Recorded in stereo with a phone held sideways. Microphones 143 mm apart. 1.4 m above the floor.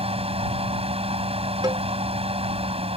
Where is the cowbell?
30° right (ahead or behind).